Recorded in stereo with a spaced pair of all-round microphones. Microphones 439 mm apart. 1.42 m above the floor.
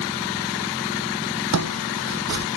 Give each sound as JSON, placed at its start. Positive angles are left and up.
{"t": 1.5, "sound": "footsteps", "side_deg": -35}